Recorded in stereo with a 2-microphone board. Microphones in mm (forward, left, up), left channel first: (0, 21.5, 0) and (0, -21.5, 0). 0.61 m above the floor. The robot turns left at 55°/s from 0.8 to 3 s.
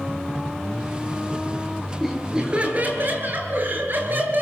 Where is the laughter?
5° left, 8.5 m; by 4.4 s 50° right, 8.5 m.